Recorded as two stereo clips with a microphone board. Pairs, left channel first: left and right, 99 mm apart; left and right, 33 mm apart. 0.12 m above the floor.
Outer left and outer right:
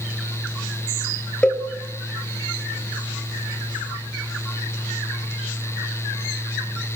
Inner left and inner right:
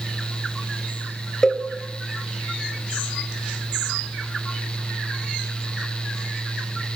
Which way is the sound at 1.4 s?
10° left (ahead or behind).